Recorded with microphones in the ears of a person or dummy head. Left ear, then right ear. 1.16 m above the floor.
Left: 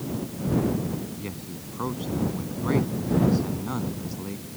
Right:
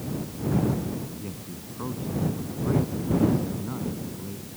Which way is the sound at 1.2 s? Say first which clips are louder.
Left 2 dB; 85° left.